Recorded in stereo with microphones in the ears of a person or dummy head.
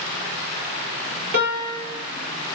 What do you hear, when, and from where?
1.3 s a piano: 55° right (ahead or behind), 4 m